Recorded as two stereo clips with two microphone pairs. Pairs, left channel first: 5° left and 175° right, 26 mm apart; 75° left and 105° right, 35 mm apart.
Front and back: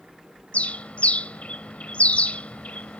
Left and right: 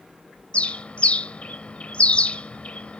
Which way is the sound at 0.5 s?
25° left.